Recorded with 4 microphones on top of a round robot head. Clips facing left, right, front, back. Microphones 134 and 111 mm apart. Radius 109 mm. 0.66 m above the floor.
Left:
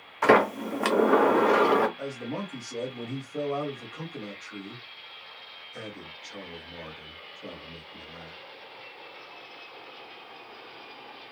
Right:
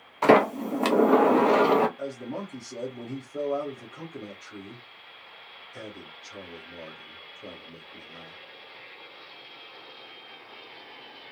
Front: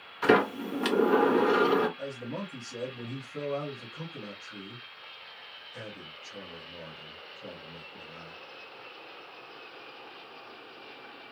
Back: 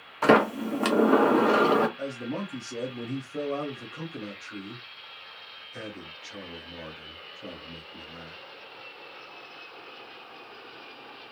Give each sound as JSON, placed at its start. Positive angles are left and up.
{"t": 0.2, "sound": "a sliding door", "azimuth_deg": -150, "distance_m": 1.1}
{"t": 2.0, "sound": "a man speaking", "azimuth_deg": 175, "distance_m": 2.0}